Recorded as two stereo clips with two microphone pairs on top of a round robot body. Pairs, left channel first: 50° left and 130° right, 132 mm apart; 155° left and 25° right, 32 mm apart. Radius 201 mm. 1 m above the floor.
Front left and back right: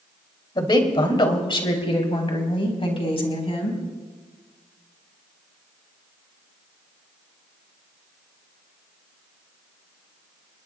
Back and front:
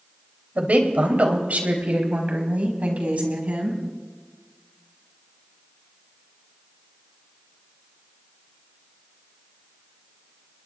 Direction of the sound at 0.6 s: Straight ahead.